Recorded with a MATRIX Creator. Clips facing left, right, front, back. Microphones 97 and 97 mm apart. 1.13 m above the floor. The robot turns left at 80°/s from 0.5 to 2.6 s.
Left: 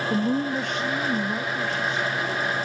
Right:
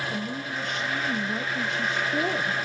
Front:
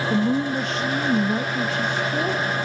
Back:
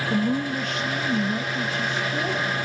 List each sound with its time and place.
0.1 s a woman speaking: 80° left, 0.7 m; by 2.6 s 90° right, 0.7 m